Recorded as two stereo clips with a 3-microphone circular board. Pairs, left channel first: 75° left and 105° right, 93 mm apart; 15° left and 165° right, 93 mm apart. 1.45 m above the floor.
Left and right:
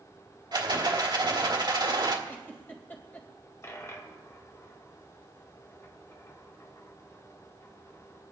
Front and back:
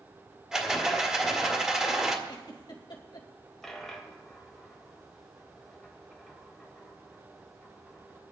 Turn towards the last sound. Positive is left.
turn(degrees=100)